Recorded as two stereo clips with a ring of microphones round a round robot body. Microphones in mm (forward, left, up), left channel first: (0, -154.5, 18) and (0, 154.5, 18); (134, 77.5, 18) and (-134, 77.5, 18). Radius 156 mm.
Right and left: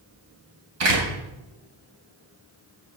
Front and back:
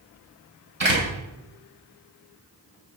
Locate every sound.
0.8 s a door slam: 130° left, 7.5 m